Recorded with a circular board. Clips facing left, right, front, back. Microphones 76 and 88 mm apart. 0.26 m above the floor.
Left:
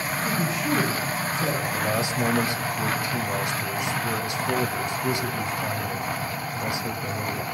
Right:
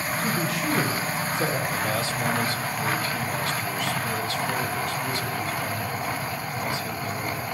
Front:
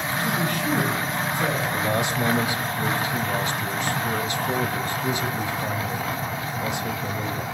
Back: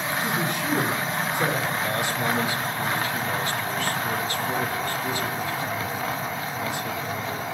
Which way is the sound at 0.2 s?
115° right.